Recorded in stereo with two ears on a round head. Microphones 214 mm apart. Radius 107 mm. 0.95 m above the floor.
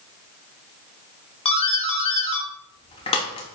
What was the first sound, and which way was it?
A doorbell, 25° left (ahead or behind).